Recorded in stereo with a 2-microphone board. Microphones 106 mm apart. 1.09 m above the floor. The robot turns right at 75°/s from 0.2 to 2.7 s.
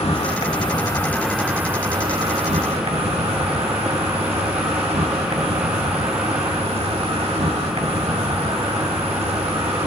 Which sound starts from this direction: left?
An insect, at 0.0 s.